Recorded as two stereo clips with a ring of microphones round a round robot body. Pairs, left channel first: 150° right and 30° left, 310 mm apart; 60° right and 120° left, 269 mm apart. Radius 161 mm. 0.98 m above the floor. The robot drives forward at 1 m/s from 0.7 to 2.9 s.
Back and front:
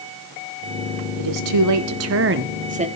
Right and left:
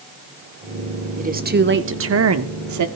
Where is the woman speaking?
55° left, 2.5 m; by 2.9 s 100° left, 2 m.